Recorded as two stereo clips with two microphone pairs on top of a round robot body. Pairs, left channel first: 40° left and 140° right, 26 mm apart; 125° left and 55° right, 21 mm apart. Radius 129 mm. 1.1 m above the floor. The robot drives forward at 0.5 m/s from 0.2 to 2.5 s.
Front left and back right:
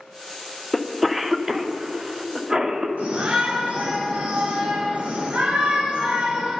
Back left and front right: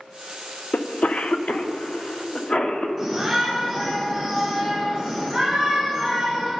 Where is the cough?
125° left, 0.6 m; by 2.9 s 160° left, 1.3 m.